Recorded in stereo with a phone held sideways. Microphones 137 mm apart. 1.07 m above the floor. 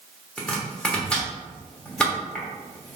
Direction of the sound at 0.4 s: 5° left (ahead or behind).